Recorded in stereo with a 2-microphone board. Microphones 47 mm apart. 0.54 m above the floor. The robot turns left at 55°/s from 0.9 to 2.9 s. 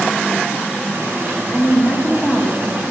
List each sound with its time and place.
1.5 s a woman speaking: 25° left (ahead or behind), 0.7 m; by 2.6 s 15° left (ahead or behind), 0.7 m